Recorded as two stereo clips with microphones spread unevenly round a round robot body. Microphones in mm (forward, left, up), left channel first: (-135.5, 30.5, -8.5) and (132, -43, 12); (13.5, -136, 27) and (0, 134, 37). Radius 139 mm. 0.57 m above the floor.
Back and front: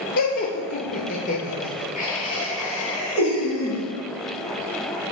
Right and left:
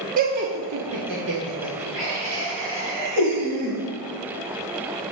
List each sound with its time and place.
0.2 s laughter: 135° left, 0.9 m; by 3.8 s 100° left, 3.5 m